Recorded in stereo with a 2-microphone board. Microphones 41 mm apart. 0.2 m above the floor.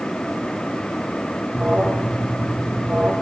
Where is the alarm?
35° right (ahead or behind), 5.5 m.